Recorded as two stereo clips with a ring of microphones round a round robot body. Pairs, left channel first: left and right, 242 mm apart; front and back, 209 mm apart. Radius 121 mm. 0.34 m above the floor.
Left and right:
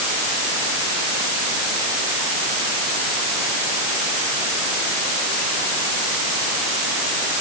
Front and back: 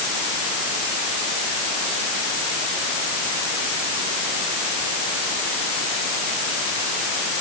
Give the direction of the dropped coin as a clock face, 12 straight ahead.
No dropped coin in this recording.